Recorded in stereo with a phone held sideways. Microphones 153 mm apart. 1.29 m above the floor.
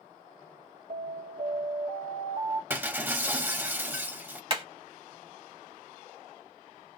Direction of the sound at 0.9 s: 70° right (ahead or behind).